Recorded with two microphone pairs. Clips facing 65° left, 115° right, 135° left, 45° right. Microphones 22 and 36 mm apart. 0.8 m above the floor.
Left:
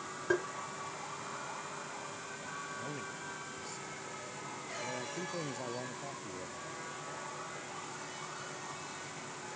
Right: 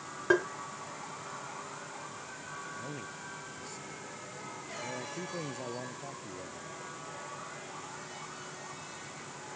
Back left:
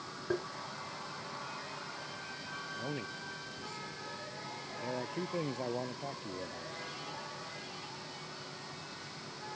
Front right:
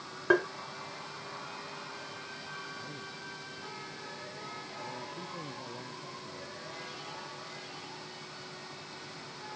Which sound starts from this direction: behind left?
A man speaking, at 2.8 s.